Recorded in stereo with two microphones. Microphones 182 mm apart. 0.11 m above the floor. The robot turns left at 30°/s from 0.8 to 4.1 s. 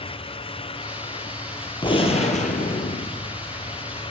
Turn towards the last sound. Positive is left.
turn(degrees=80)